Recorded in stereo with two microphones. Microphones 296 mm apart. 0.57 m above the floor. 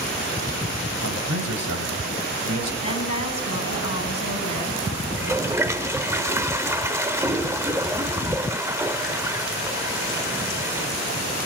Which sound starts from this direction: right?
A man speaking, at 1.0 s.